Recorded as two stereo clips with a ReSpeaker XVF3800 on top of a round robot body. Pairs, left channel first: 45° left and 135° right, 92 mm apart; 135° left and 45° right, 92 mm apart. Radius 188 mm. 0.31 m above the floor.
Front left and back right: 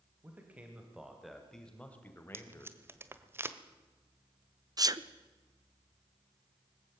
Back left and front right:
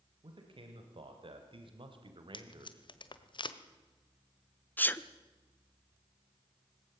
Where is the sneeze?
160° right, 1.2 m.